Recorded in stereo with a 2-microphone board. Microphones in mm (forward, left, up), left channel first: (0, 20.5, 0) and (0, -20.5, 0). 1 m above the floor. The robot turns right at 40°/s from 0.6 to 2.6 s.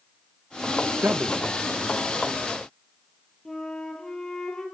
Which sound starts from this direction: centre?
A flute, at 3.5 s.